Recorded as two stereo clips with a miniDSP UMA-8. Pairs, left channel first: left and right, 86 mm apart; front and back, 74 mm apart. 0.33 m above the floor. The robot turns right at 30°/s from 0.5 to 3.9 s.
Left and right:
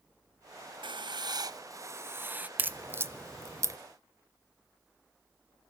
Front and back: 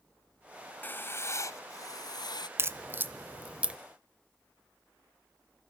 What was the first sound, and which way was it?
Writing, 65° right.